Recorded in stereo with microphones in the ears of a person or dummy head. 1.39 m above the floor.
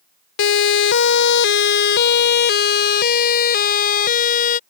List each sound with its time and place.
0.4 s a siren: 75° left (ahead or behind); by 4.6 s 45° left (ahead or behind)